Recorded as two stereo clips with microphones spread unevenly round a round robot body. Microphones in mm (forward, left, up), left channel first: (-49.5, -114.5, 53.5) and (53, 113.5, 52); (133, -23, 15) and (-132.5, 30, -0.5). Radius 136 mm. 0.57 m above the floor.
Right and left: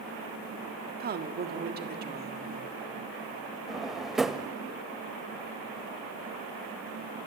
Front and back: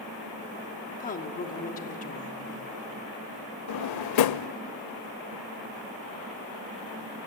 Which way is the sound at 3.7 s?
25° right.